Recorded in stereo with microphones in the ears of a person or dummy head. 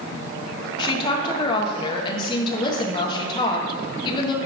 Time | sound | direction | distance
0.8 | a woman speaking | 25° left (ahead or behind) | 1.1 m